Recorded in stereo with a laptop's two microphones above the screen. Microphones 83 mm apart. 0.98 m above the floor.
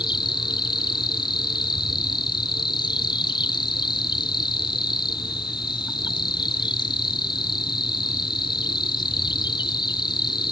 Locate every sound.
0.0 s an insect: 60° left (ahead or behind), 1.0 m